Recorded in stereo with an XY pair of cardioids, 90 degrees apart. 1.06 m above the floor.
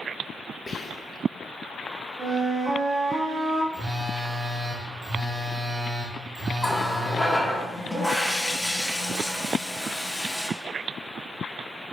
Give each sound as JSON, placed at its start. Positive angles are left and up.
{"t": 0.7, "sound": "whispering", "azimuth_deg": 30, "distance_m": 1.0}
{"t": 2.2, "sound": "a flute", "azimuth_deg": -40, "distance_m": 2.0}
{"t": 3.7, "sound": "a phone buzzing", "azimuth_deg": -35, "distance_m": 2.5}
{"t": 6.6, "sound": "a running tap", "azimuth_deg": 5, "distance_m": 1.3}